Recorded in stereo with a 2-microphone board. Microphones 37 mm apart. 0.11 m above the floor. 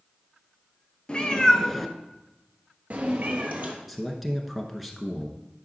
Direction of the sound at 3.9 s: 5° right (ahead or behind).